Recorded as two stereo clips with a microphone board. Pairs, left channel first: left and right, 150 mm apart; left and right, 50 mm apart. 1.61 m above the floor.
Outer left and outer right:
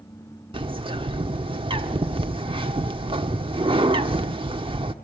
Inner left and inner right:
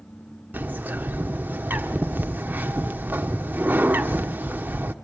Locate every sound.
0.5 s a bird: 35° right (ahead or behind), 1.5 m